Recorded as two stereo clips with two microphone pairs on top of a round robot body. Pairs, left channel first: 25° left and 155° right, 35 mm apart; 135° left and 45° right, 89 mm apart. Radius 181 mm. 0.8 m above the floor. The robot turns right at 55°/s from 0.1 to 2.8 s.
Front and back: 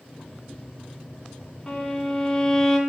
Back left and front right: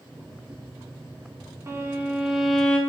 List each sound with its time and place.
1.7 s a violin: 5° left, 0.8 m; by 2.8 s 65° left, 0.8 m